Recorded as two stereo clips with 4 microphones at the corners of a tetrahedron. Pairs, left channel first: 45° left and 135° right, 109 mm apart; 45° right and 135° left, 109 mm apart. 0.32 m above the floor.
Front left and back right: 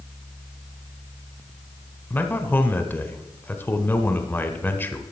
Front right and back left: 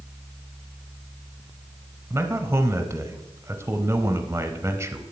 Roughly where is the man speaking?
Left.